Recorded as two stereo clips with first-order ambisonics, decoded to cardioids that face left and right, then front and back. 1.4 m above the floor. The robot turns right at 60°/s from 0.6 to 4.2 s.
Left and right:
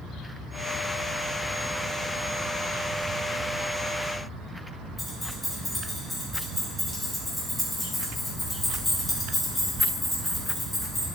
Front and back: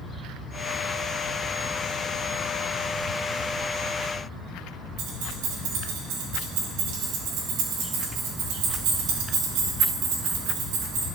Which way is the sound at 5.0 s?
175° left.